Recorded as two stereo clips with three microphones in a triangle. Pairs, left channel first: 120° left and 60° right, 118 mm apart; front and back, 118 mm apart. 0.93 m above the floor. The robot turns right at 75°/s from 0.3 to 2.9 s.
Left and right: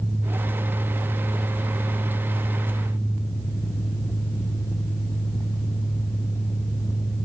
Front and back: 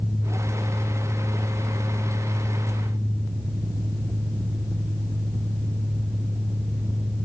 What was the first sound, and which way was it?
Only background noise.